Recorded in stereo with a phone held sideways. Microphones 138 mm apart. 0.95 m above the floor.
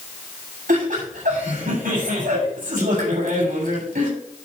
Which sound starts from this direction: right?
Laughter, at 0.7 s.